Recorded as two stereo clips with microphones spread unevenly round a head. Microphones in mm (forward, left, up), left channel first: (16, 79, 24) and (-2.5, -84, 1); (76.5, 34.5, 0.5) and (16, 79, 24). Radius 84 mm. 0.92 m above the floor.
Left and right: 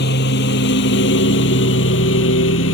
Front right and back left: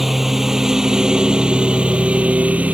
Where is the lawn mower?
60° left; by 2.8 s 75° left.